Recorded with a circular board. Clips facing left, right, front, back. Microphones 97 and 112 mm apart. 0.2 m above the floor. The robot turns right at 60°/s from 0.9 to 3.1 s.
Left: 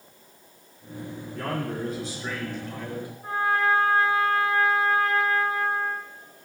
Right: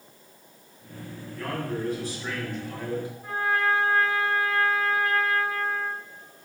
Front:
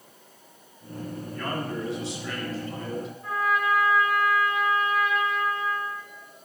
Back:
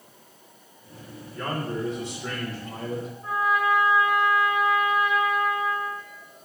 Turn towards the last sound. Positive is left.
turn(degrees=130)